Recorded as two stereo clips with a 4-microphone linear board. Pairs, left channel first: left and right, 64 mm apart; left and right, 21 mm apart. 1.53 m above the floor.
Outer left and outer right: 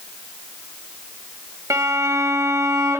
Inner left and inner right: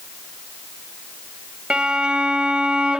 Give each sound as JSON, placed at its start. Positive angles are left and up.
{"t": 1.7, "sound": "a violin", "side_deg": -55, "distance_m": 2.0}